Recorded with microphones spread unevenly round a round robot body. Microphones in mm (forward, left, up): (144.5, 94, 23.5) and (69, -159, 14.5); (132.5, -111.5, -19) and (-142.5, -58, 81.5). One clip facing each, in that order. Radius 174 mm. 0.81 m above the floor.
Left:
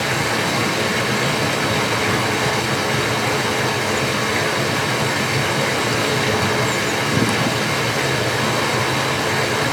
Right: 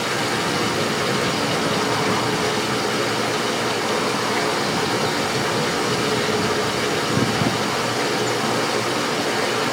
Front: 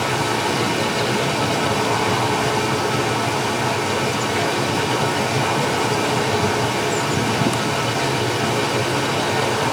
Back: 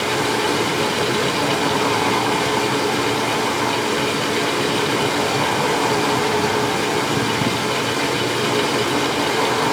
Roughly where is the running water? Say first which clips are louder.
Left 1 dB, back 2 dB; left.